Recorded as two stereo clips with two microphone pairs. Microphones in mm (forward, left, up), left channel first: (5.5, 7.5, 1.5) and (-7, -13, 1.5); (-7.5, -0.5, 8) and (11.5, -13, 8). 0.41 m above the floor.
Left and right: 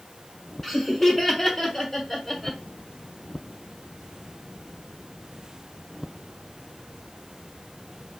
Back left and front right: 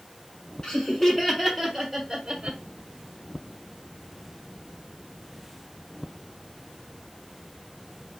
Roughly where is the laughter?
Behind left.